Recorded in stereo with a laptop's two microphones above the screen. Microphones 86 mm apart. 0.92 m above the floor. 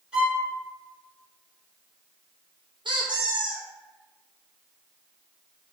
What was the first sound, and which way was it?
A violin, 10° right (ahead or behind).